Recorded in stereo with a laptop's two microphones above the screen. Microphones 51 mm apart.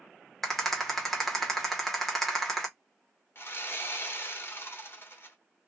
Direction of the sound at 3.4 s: 50° left (ahead or behind).